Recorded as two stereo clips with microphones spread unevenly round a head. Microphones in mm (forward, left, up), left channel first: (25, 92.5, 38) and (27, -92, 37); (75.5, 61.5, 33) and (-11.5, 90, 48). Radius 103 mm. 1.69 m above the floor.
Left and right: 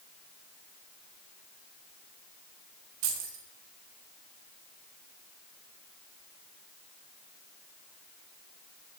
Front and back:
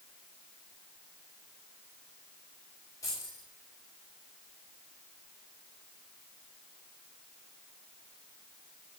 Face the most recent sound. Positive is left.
turn(degrees=-90)